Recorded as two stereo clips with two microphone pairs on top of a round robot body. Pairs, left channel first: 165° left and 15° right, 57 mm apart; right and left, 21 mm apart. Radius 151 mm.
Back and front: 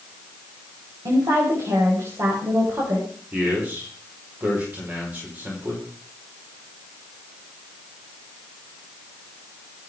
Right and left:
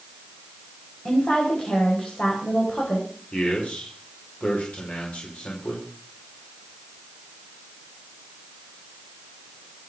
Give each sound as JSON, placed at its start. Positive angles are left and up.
{"t": 1.1, "sound": "a woman speaking", "azimuth_deg": -40, "distance_m": 5.0}
{"t": 3.3, "sound": "a man speaking", "azimuth_deg": -75, "distance_m": 5.0}